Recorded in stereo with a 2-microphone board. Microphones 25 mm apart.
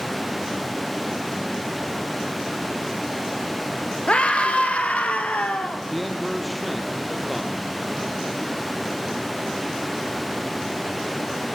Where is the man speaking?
5° right (ahead or behind), 3 m.